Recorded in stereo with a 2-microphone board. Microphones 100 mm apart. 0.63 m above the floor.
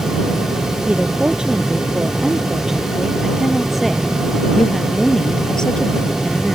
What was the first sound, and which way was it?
A woman speaking, 10° right (ahead or behind).